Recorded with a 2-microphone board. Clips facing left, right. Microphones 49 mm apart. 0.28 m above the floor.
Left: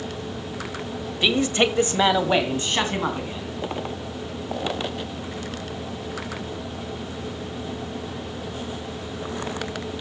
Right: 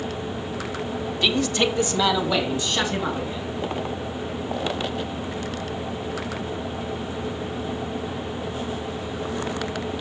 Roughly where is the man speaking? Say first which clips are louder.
Left 2 dB; centre.